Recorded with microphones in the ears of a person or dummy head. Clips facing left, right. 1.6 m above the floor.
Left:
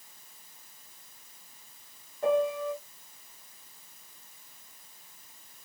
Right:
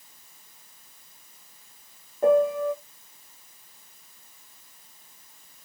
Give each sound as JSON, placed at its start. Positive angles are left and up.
{"t": 2.2, "sound": "a piano", "side_deg": -45, "distance_m": 0.6}